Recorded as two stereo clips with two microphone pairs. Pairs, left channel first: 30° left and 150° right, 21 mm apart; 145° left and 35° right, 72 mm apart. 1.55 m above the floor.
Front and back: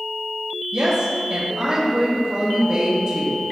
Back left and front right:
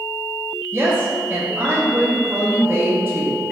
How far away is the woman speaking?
About 1.9 m.